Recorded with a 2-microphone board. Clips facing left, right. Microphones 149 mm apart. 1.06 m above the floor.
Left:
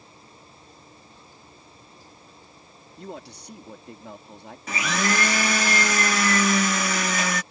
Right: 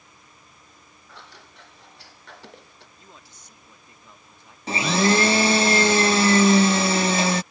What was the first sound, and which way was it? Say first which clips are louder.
Scissors: right 2 dB; 80° right.